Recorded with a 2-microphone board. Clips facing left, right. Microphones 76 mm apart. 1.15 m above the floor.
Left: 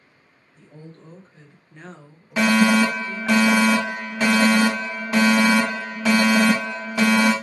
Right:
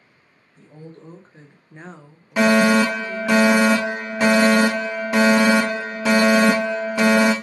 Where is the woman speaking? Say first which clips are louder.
Right 3 dB; 35° right (ahead or behind), 1.4 m; by 3.4 s 25° left (ahead or behind), 1.5 m.